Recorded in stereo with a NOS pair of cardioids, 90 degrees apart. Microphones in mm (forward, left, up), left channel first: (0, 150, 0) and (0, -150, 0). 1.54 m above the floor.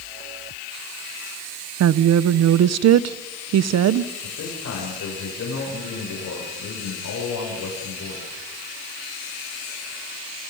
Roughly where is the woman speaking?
Ahead right.